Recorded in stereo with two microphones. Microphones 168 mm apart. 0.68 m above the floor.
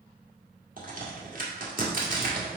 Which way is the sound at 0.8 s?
55° right (ahead or behind).